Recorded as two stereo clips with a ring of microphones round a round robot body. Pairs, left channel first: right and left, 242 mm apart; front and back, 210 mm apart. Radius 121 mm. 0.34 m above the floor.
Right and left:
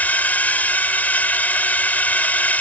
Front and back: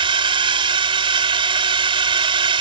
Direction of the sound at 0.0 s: 165° right.